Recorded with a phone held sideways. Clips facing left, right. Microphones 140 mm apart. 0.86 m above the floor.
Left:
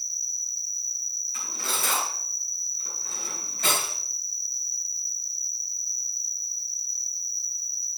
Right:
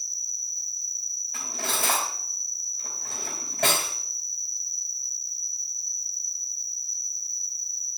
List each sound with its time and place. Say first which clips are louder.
0.0 s an insect: left 1 dB; 15° right (ahead or behind), 1.1 m
1.3 s cutlery clinking: right 3 dB; 80° right, 3.5 m